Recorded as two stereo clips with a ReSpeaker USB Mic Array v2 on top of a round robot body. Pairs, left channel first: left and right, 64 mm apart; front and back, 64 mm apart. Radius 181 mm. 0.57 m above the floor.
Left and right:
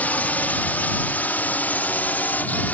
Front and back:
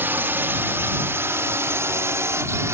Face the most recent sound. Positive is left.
turn(degrees=150)